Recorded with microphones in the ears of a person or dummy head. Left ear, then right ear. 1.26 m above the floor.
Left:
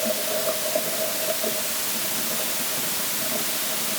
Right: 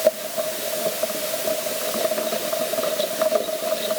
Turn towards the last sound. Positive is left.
No sound to turn to.